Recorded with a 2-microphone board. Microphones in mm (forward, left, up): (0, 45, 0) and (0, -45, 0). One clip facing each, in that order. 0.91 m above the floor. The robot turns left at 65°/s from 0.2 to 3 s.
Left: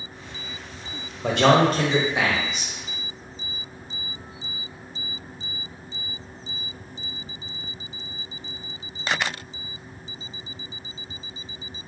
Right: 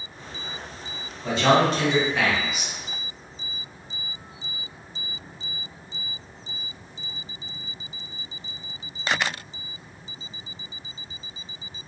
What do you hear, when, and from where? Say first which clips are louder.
1.2 s a man speaking: left 2 dB; 80° left, 0.7 m; by 2.7 s 15° right, 0.7 m